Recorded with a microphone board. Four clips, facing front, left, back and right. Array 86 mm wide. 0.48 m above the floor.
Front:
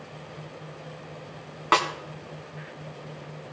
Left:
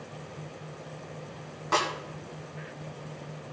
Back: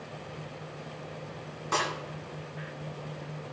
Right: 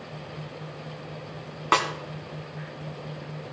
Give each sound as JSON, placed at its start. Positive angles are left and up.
{"t": 1.7, "sound": "a snare drum", "azimuth_deg": -40, "distance_m": 2.0}